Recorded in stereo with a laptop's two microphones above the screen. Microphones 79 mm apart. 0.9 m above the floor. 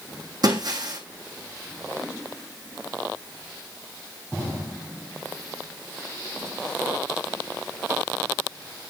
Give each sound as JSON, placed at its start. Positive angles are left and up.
{"t": 0.4, "sound": "breaking glass", "side_deg": -60, "distance_m": 2.5}